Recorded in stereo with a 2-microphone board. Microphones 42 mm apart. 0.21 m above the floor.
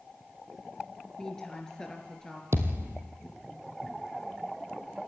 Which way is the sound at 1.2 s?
15° left (ahead or behind).